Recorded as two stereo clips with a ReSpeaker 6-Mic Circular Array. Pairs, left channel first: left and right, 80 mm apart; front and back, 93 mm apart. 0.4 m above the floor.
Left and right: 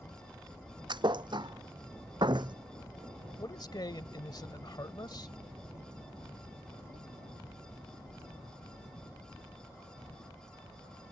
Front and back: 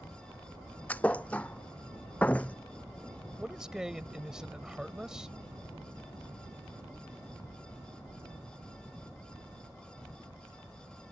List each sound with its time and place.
0.9 s a thud: 75° right
3.4 s a man speaking: 95° left